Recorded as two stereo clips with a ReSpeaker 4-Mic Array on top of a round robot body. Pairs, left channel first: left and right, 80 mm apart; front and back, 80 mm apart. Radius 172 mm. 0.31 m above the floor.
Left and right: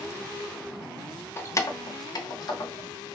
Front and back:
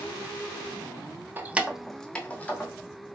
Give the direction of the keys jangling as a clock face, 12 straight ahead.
8 o'clock.